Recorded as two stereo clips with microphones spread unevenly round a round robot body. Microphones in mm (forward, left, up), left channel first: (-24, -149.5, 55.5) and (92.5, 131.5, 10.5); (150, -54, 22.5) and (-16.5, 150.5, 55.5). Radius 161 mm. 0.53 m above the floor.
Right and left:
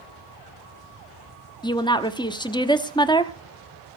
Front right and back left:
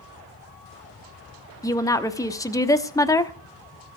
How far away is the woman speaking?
About 1.0 m.